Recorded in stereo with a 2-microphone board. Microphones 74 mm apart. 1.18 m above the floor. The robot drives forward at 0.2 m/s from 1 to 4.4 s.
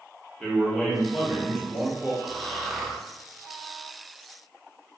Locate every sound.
0.4 s a man speaking: 10° left (ahead or behind), 0.9 m; by 2.1 s 5° left (ahead or behind), 1.1 m
2.2 s snoring: 5° left (ahead or behind), 0.6 m